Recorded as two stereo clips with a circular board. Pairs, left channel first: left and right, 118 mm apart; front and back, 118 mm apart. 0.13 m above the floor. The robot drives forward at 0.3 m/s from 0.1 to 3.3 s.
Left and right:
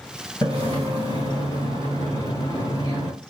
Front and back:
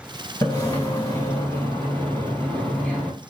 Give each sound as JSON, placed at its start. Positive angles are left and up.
{"t": 0.4, "sound": "a splash", "azimuth_deg": 45, "distance_m": 1.9}